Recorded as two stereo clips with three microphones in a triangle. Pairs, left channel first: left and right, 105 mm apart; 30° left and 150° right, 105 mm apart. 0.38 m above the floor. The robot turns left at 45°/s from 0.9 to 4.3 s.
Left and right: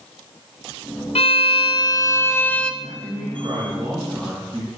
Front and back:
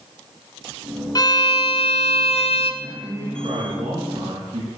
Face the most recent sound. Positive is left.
turn(degrees=-170)